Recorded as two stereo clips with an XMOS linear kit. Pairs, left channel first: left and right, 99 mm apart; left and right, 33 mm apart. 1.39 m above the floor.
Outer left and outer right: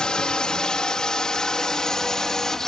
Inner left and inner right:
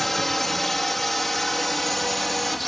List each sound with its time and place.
0.0 s a drone: 10° left (ahead or behind); by 2.7 s 5° left (ahead or behind)